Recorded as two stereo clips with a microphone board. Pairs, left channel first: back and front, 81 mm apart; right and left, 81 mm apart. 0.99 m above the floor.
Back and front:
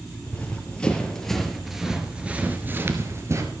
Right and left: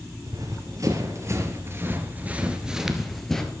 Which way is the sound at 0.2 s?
115° left.